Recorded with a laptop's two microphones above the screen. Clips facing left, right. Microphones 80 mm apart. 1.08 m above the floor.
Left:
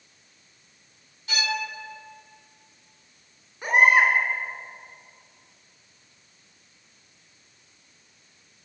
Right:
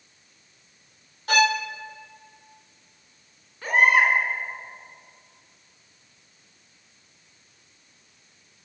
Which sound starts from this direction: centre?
A baby crying, at 3.6 s.